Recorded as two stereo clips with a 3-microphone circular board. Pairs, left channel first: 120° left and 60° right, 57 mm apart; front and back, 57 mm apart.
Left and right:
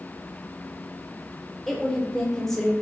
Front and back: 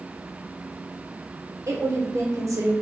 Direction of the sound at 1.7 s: 160° right.